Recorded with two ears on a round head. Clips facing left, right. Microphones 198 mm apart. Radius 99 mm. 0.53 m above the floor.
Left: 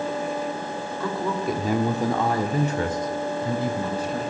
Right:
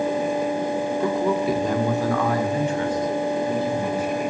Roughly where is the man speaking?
Right.